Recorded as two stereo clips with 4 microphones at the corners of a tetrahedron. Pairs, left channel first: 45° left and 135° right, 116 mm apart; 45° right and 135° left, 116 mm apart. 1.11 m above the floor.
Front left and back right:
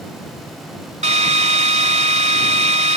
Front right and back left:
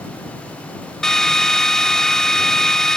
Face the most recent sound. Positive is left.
turn(degrees=-130)